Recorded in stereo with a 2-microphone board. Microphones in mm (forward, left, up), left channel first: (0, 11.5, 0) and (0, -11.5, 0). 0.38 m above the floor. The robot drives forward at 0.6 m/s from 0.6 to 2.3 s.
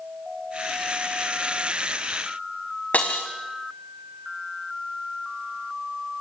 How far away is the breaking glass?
About 6 m.